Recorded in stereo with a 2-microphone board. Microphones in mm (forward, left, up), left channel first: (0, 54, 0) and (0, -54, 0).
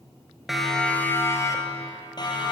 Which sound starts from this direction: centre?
A siren, at 0.5 s.